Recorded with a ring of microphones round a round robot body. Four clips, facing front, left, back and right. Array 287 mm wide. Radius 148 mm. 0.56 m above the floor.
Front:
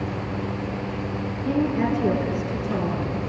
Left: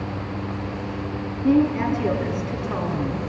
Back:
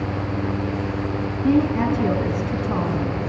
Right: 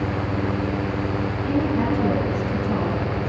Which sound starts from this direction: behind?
A woman speaking, at 1.4 s.